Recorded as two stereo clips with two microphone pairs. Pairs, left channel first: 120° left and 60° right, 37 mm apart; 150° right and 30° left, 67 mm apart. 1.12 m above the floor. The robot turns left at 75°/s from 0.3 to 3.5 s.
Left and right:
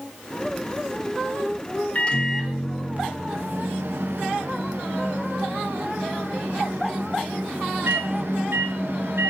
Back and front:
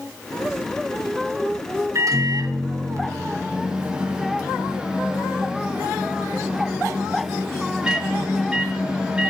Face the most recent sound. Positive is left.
turn(degrees=-45)